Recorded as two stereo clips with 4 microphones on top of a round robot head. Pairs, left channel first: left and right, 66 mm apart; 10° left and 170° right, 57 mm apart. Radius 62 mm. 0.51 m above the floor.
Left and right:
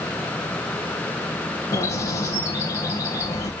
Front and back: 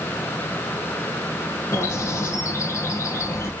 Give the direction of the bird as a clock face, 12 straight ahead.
10 o'clock.